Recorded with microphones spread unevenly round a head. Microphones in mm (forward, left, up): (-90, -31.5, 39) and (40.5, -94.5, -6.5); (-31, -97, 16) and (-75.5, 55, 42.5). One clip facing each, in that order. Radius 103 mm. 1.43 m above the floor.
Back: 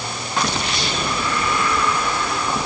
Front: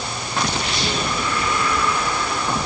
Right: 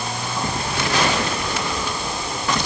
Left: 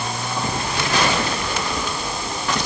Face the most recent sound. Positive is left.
No sound to turn to.